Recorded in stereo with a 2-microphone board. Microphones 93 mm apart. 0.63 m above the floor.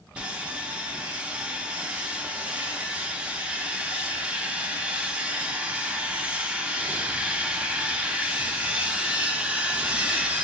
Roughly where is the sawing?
Centre.